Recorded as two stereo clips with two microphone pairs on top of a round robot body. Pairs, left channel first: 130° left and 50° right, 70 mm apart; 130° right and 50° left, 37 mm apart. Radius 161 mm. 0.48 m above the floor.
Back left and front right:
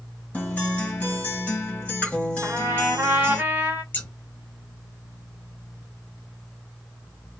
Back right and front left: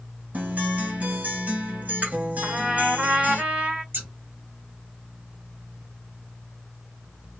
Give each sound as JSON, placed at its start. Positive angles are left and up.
{"t": 0.3, "sound": "a guitar", "azimuth_deg": 65, "distance_m": 1.6}
{"t": 2.4, "sound": "a trumpet", "azimuth_deg": 0, "distance_m": 1.8}
{"t": 3.9, "sound": "scissors", "azimuth_deg": 70, "distance_m": 1.0}